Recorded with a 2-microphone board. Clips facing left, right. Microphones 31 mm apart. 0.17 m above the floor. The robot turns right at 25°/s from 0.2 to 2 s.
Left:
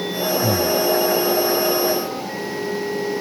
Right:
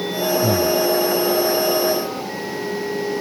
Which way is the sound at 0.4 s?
20° right (ahead or behind).